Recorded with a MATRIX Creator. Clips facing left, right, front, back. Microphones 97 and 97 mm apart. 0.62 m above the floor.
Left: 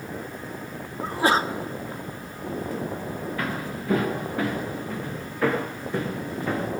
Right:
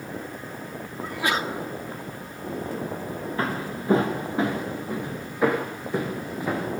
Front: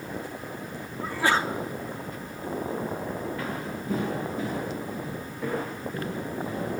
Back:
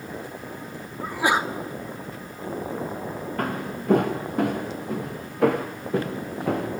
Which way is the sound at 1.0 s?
115° left.